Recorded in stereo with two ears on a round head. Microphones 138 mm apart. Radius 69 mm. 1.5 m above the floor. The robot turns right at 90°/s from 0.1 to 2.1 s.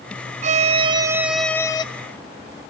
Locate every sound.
0.4 s a violin: 90° right, 0.5 m; by 1.8 s 40° left, 0.5 m